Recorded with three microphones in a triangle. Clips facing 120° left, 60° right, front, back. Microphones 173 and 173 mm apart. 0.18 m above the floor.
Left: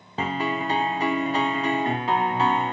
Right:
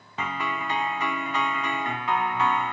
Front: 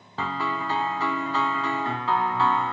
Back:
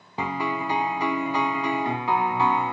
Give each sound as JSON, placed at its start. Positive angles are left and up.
{"t": 0.2, "sound": "a piano", "azimuth_deg": 125}